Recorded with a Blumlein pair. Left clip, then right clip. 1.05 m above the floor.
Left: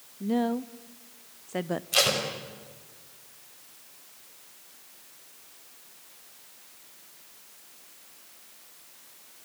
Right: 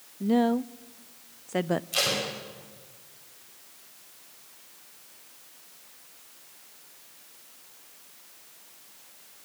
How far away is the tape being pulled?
About 5 m.